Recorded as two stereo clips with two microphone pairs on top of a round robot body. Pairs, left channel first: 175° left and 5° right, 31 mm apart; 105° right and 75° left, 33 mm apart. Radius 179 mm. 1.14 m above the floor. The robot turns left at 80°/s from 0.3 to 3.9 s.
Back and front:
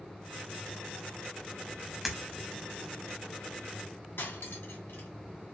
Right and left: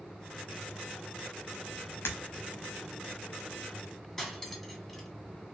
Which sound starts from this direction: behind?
Cutlery clinking, at 4.2 s.